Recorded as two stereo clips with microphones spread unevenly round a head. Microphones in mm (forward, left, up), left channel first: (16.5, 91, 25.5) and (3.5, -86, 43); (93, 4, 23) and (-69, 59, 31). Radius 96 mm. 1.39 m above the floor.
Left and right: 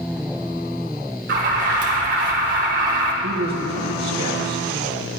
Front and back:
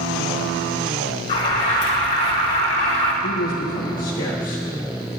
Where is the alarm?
75° right, 2.5 m.